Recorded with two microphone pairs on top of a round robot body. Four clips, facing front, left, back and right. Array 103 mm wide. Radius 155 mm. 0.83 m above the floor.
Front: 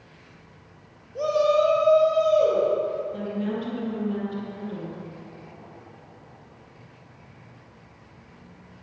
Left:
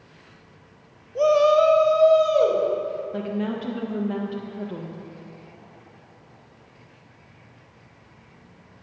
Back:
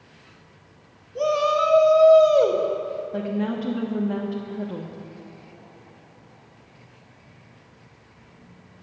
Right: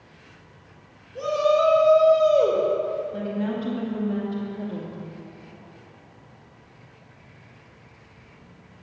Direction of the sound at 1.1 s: 100° left.